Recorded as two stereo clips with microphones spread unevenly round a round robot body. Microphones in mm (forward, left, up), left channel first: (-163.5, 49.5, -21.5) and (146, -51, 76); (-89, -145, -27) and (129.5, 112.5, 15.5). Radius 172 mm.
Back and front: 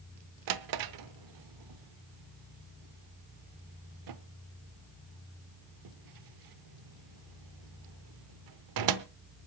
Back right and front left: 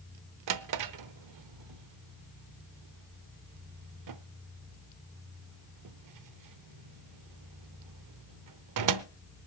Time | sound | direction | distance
0.5 | a drawer | 15° left | 0.8 m